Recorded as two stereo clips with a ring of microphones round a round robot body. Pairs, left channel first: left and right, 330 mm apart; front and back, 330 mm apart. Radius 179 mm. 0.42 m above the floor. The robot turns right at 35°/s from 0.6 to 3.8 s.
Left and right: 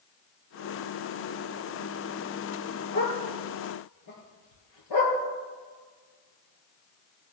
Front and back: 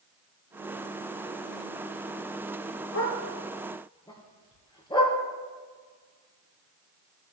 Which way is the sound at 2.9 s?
45° left.